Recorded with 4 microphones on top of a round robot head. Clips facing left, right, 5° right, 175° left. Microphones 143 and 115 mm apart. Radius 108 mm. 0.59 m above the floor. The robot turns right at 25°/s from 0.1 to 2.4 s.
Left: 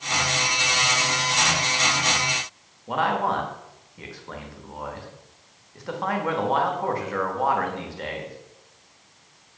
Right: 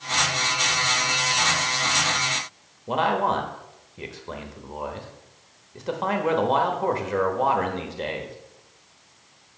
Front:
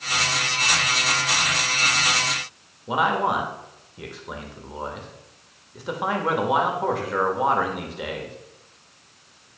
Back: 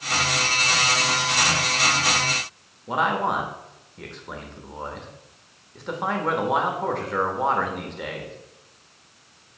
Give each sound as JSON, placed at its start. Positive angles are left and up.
{"t": 2.9, "sound": "a man speaking", "azimuth_deg": -85, "distance_m": 1.1}